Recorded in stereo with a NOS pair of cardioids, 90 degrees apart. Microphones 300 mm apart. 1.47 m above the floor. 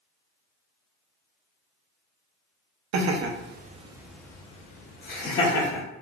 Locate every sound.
2.9 s laughter: 65° right, 0.7 m; by 5.8 s 45° left, 1.2 m